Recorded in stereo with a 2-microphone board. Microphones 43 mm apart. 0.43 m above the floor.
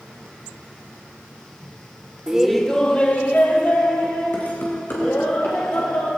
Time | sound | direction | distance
2.3 | laughter | 20° right (ahead or behind) | 0.9 m